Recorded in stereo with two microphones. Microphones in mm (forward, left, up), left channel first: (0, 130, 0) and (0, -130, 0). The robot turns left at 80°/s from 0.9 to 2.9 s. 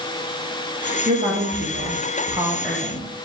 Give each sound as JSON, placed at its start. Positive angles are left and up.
{"t": 1.1, "sound": "a woman speaking", "azimuth_deg": -45, "distance_m": 0.9}